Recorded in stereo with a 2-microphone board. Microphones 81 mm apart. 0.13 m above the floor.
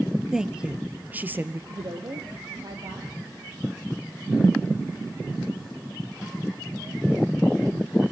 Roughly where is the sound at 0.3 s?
Centre.